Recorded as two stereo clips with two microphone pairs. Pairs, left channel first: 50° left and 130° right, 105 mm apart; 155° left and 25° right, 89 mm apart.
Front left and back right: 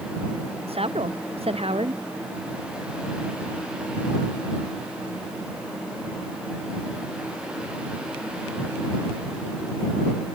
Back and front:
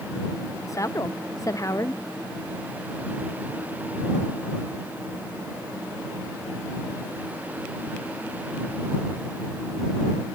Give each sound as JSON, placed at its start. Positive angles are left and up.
{"t": 0.7, "sound": "a woman speaking", "azimuth_deg": -150}